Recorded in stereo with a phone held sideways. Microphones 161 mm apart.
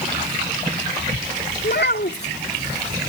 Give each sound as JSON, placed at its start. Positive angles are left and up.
{"t": 1.6, "sound": "a child speaking", "side_deg": 75}